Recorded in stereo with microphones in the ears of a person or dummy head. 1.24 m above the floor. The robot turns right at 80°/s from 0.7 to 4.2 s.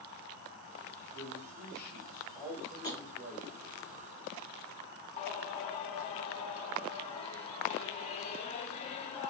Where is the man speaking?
80° left, 1.2 m; by 3.6 s 85° right, 1.2 m.